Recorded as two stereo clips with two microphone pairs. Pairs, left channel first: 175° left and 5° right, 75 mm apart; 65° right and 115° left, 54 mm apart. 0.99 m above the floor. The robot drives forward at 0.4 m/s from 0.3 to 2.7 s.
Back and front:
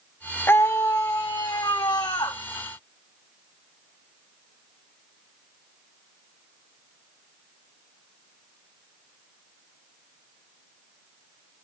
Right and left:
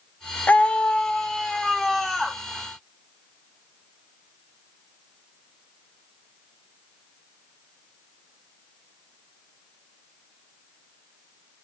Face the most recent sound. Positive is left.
turn(degrees=-160)